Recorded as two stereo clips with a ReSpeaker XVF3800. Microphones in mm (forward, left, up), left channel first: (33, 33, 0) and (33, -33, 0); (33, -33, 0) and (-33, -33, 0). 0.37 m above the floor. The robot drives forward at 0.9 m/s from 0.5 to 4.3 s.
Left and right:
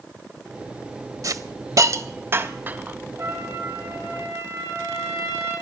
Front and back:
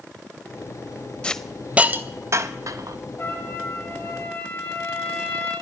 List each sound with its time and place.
1.2 s a hiss: 70° right, 0.8 m; by 3.0 s 155° right, 1.5 m
3.2 s a trumpet: 50° right, 8.5 m; by 5.5 s 55° right, 8 m